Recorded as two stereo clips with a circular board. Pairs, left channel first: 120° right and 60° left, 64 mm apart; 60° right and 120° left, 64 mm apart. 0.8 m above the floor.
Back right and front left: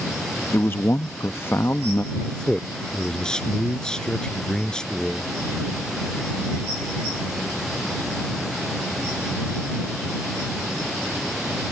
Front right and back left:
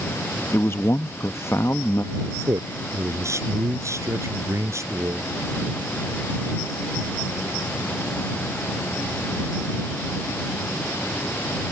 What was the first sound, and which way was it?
A man speaking, 85° right.